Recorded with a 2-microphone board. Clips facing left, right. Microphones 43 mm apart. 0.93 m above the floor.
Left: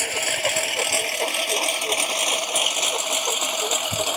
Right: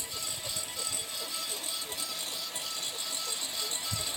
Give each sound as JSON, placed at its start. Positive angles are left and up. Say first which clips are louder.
{"t": 0.0, "sound": "a lawn mower", "louder": "left 17 dB", "side_deg": 80}